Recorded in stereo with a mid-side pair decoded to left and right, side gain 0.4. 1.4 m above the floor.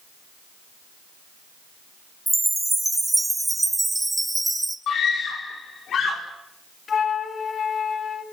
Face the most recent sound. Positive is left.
turn(degrees=50)